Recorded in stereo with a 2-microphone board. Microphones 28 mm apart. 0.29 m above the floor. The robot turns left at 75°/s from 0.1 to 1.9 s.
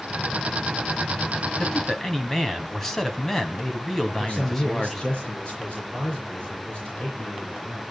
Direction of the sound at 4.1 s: 35° left (ahead or behind).